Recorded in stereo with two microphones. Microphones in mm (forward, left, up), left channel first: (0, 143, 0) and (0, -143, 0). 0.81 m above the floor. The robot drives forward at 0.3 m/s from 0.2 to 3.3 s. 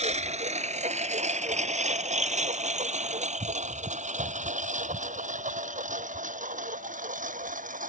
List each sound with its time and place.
0.0 s a lawn mower: 25° right (ahead or behind); by 7.9 s 30° right (ahead or behind)